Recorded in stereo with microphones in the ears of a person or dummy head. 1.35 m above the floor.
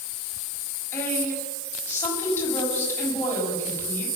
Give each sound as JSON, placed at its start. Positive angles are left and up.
{"t": 0.9, "sound": "a woman speaking", "side_deg": 15, "distance_m": 7.0}